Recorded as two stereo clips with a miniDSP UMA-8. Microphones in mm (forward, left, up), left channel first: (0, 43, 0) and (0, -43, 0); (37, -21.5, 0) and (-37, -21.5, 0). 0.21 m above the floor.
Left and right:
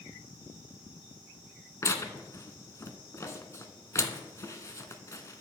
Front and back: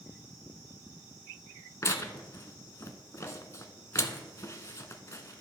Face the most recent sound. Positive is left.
turn(degrees=40)